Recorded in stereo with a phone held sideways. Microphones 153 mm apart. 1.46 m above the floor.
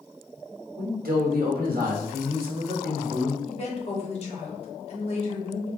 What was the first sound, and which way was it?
A man speaking, 80° right.